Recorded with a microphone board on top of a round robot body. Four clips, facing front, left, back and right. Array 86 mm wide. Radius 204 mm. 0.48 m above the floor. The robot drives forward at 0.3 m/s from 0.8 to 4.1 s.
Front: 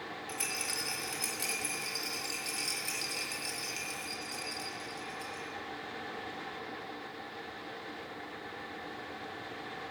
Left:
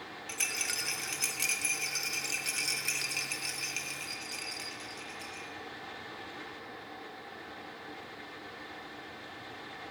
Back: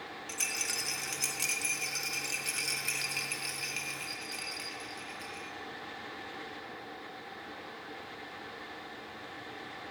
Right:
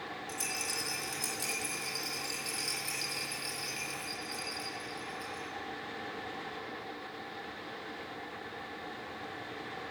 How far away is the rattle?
About 1.1 m.